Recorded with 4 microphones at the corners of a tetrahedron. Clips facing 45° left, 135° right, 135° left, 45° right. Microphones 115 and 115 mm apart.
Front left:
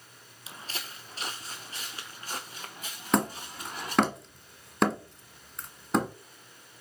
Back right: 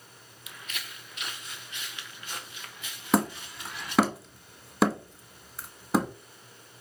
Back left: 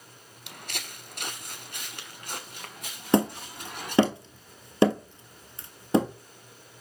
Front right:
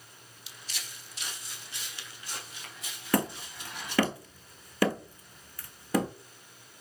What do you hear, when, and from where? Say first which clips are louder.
0.5 s footsteps: front left 2 dB, back left 7 dB; 105° left, 0.6 m; by 4.0 s 95° left, 3.5 m
3.1 s hammering: back right 1 dB, back left 5 dB; 145° left, 1.3 m